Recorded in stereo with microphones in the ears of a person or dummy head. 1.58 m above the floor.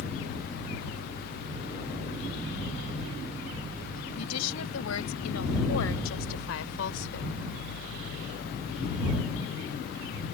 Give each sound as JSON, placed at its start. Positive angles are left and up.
{"t": 4.2, "sound": "a woman speaking", "side_deg": 85}